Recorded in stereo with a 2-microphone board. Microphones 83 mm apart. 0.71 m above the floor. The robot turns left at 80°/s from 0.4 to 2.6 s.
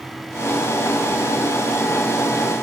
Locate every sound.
Only background noise.